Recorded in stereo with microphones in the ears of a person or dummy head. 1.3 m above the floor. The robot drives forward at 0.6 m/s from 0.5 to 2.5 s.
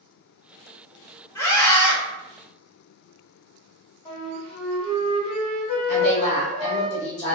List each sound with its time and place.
1.4 s a scream: 15° left (ahead or behind), 0.8 m; by 1.9 s 10° left (ahead or behind), 1.1 m
4.0 s a flute: 30° left (ahead or behind), 1.2 m
5.9 s a woman speaking: 40° left (ahead or behind), 0.7 m